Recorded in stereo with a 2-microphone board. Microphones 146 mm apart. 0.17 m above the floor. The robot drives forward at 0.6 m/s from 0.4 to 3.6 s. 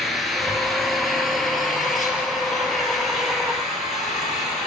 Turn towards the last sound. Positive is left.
turn(degrees=0)  # may be behind; listen again after turning